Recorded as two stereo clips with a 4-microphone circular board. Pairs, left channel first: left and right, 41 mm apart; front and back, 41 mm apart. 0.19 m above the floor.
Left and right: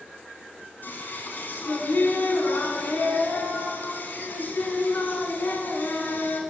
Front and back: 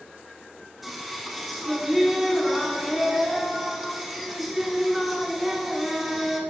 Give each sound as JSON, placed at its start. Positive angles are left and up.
{"t": 0.8, "sound": "singing", "azimuth_deg": 90, "distance_m": 0.8}